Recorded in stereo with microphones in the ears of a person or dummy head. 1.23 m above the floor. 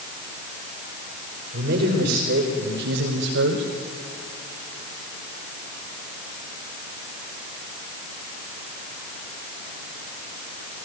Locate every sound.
1.5 s a man speaking: 55° right (ahead or behind), 5 m; by 3.6 s 65° right (ahead or behind), 4.5 m